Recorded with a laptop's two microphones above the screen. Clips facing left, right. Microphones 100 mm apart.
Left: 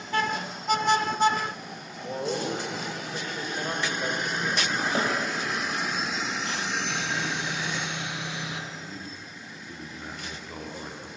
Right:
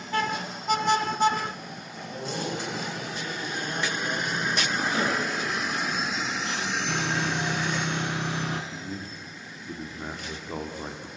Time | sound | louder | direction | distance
2.0 | a man speaking | left 4 dB | 75° left (ahead or behind) | 6.5 m
5.0 | a snare drum | even | 40° left (ahead or behind) | 5 m
6.9 | sawing | right 3 dB | 50° right (ahead or behind) | 2.0 m
8.7 | a man speaking | right 3 dB | 30° right (ahead or behind) | 1.8 m